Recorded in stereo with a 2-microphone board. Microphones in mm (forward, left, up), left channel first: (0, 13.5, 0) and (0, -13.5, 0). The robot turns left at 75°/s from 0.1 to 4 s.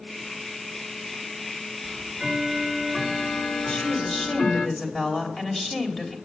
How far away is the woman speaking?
About 3 m.